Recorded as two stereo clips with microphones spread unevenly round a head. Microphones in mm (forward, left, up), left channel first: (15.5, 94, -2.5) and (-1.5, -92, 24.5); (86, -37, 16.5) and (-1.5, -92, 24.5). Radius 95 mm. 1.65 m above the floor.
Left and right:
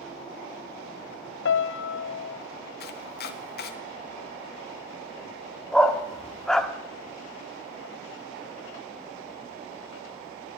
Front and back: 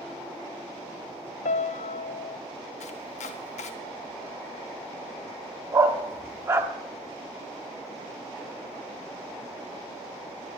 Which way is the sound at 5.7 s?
175° right.